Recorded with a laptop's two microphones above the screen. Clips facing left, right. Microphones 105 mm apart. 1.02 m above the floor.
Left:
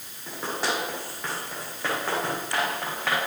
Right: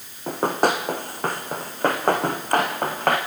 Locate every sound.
0.3 s running footsteps: 50° right (ahead or behind), 4.5 m